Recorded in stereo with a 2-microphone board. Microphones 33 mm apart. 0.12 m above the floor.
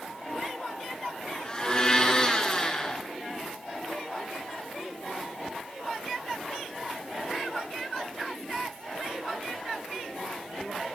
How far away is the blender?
About 1.4 m.